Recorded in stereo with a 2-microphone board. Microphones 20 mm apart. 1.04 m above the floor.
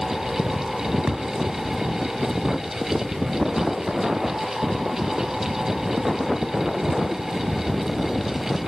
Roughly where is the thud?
Right.